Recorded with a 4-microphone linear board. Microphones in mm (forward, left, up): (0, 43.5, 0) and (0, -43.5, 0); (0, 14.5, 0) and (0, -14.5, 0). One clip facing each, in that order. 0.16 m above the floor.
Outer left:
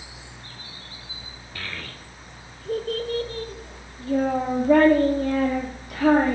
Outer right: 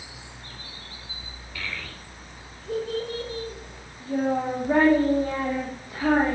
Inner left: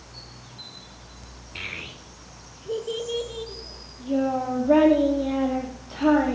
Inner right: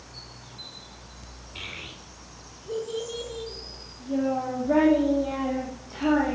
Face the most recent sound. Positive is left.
turn(degrees=70)  # may be behind; listen again after turning